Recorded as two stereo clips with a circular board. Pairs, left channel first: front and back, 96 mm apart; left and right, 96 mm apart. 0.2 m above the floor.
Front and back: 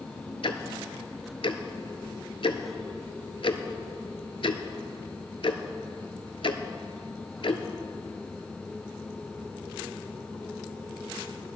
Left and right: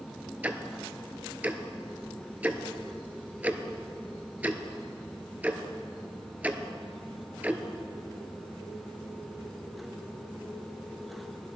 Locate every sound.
0.4 s ticking: 15° right, 0.7 m